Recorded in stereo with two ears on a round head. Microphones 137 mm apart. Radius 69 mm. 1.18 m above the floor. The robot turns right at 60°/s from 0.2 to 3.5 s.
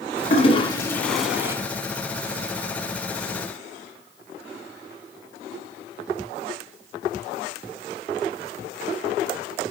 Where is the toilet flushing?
50° left (ahead or behind), 2.5 m; by 1.6 s 20° right (ahead or behind), 2.5 m.